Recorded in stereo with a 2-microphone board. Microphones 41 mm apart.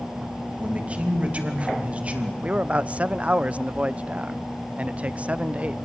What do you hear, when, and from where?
0.6 s a man speaking: 30° right (ahead or behind), 2.5 m
2.4 s a man speaking: 30° right (ahead or behind), 0.5 m